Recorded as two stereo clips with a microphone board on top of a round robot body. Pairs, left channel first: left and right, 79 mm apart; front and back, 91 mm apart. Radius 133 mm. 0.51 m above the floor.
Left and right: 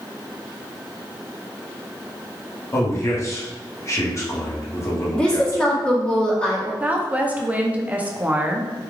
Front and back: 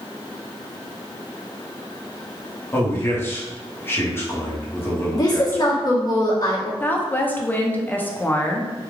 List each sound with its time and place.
2.7 s a man speaking: 55° left, 1.3 m
5.1 s a woman speaking: 20° left, 1.6 m
6.8 s a woman speaking: 40° right, 0.7 m